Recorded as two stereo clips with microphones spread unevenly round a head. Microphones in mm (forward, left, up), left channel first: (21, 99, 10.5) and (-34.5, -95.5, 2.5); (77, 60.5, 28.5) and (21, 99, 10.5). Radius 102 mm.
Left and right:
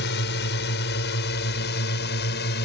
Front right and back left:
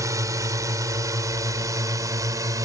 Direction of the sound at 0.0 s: 110° left.